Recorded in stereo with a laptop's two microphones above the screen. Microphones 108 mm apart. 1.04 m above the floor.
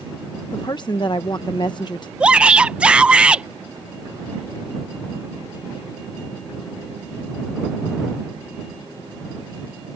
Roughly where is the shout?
Centre.